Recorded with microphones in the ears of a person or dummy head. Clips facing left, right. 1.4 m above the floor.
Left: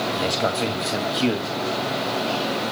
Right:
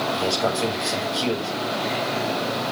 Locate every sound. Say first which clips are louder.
0.1 s a man speaking: even; 25° left (ahead or behind), 2.5 m